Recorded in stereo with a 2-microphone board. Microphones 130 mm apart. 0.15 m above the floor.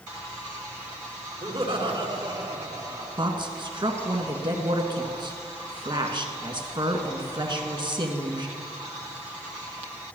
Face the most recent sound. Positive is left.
turn(degrees=-35)  # may be behind; listen again after turning